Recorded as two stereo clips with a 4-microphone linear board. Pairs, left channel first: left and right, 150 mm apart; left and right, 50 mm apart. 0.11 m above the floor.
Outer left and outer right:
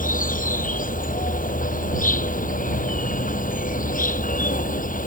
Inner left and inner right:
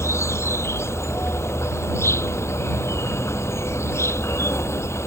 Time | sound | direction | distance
0.0 | an insect | 65° left (ahead or behind) | ?